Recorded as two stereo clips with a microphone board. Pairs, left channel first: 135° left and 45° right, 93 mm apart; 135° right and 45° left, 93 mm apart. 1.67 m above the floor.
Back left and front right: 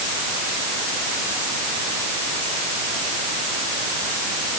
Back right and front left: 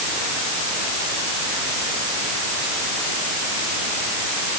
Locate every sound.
Only background noise.